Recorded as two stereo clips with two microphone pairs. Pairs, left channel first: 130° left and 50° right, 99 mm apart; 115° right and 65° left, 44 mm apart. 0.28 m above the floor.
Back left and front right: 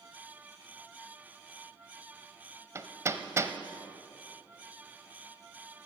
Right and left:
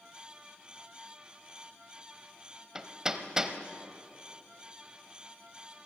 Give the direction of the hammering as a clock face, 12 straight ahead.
12 o'clock.